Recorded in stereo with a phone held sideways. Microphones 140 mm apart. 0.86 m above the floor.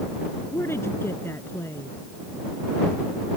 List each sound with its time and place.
0.5 s a woman speaking: 15° left (ahead or behind)